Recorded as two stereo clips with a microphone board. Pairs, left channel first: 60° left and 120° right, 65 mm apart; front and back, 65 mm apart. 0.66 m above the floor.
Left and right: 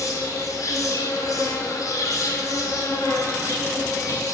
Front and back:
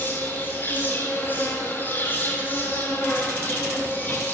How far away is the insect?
About 2.5 m.